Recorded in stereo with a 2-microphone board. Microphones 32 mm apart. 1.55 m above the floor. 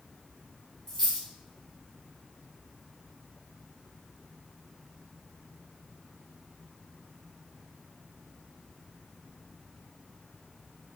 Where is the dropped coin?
20° left (ahead or behind), 1.9 m.